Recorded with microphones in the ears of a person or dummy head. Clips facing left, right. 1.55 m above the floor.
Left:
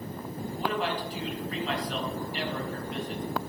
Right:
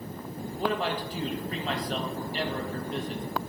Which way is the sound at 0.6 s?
35° right (ahead or behind).